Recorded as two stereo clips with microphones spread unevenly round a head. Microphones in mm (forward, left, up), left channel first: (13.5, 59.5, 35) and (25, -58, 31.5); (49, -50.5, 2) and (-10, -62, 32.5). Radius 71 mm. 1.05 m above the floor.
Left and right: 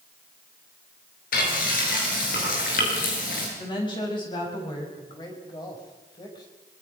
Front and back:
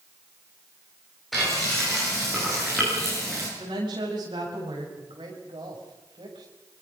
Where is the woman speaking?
150° left, 8 m.